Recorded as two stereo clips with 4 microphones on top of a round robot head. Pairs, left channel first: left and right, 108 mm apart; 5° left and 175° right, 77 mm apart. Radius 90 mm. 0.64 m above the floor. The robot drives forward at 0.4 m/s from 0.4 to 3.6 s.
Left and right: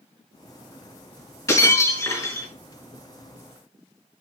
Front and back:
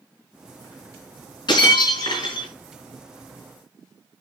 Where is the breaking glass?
30° left, 5 m.